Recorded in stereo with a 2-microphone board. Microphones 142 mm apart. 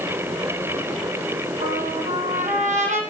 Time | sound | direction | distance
1.6 | a trumpet | 60° right (ahead or behind) | 4.5 m